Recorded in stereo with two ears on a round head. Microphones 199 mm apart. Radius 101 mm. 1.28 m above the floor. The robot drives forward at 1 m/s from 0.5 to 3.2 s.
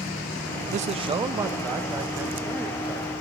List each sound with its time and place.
0.7 s a man speaking: 35° right (ahead or behind), 0.5 m; by 3.1 s 5° right (ahead or behind), 2.5 m